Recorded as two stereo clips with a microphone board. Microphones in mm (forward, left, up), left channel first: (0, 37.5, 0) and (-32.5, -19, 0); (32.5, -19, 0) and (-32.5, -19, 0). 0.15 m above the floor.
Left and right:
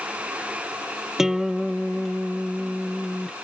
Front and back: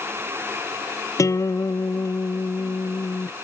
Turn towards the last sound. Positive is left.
turn(degrees=-35)